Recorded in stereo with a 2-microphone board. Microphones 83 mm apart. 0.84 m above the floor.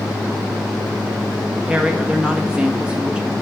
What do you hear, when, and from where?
1.7 s a woman speaking: 10° right (ahead or behind), 1.2 m